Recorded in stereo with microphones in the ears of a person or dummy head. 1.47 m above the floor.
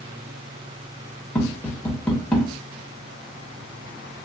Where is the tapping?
10° left (ahead or behind), 1.1 m.